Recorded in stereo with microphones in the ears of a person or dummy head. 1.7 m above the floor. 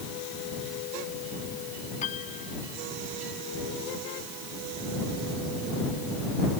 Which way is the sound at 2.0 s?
45° left (ahead or behind).